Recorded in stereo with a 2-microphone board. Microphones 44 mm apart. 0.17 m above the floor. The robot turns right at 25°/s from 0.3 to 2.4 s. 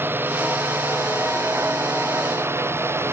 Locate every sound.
0.0 s a drone: 125° right; by 3.1 s 70° right